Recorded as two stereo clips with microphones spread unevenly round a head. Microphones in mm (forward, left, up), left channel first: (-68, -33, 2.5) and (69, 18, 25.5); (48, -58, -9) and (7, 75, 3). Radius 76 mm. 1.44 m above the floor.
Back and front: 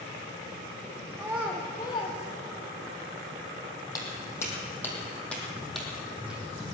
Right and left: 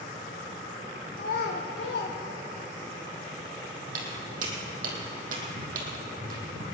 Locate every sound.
1.2 s a child speaking: 55° right, 1.3 m; by 2.9 s 145° right, 1.5 m
3.9 s footsteps: 130° left, 3 m; by 6.7 s 95° left, 3.5 m